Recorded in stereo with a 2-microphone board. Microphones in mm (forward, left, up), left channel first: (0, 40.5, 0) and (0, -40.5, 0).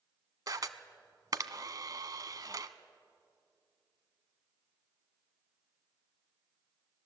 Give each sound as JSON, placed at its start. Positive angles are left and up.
{"t": 0.5, "sound": "a camera shutter", "side_deg": -50, "distance_m": 0.9}